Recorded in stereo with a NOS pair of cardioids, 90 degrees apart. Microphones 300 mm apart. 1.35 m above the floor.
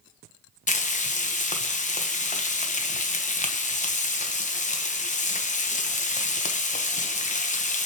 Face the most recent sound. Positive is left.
turn(degrees=25)